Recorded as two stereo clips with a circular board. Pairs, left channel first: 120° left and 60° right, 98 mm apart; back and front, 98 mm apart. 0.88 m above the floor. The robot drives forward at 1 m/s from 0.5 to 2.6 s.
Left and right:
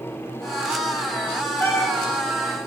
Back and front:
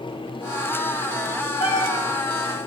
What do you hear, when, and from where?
1.6 s a cat meowing: 175° right, 3.5 m